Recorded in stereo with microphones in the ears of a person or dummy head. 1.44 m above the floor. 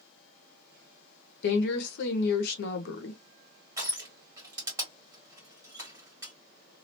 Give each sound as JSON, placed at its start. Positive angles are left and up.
{"t": 1.4, "sound": "a woman speaking", "side_deg": 65, "distance_m": 0.9}
{"t": 3.8, "sound": "crushing", "side_deg": -20, "distance_m": 1.9}